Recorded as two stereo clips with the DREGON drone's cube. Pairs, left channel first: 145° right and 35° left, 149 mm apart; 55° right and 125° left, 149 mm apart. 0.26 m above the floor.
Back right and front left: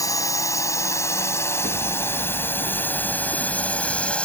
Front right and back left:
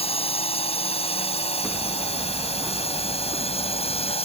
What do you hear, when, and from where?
0.0 s a drone: 85° right; by 4.2 s 65° right
1.6 s hammering: 150° right